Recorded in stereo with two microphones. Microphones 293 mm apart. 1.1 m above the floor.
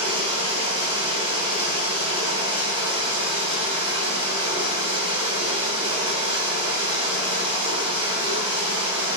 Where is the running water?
15° right (ahead or behind), 3 m.